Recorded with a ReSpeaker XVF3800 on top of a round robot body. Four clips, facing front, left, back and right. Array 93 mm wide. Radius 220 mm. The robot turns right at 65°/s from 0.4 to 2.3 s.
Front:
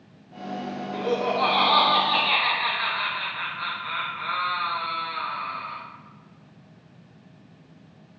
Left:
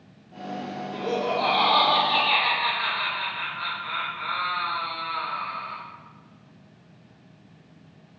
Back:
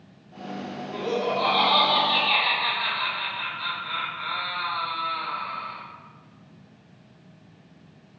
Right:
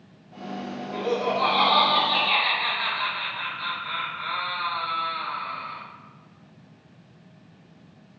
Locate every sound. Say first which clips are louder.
0.9 s laughter: right 1 dB, front 1 dB; 55° right, 0.9 m; by 5.8 s 35° left, 0.9 m